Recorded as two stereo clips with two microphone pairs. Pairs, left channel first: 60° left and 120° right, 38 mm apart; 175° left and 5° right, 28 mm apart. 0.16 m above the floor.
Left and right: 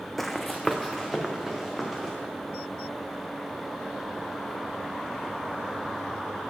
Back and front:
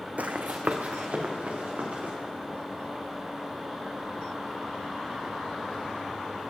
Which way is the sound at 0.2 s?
30° right.